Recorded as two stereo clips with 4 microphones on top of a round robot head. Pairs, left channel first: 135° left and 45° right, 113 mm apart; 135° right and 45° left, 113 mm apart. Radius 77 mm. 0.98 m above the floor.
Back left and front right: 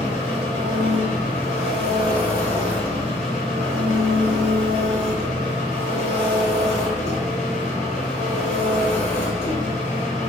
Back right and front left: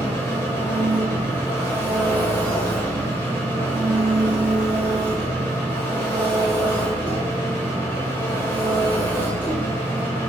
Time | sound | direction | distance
0.0 | an engine running | 155° left | 1.7 m